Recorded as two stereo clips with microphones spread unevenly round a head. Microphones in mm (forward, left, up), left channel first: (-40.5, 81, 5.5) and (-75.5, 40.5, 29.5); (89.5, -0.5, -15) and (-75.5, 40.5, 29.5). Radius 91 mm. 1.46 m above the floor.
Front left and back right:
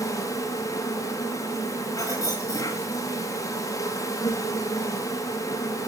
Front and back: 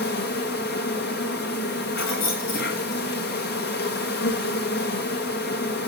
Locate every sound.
0.0 s an insect: 15° left, 2.5 m
2.0 s keys jangling: 10° right, 6.5 m